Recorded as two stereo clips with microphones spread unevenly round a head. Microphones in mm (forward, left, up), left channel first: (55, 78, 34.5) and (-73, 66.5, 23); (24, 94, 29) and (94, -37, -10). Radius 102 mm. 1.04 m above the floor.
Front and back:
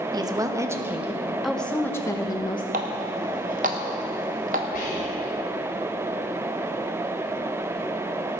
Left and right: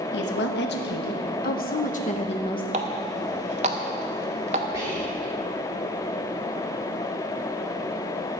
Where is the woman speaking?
130° left, 1.3 m; by 2.6 s 55° left, 1.0 m.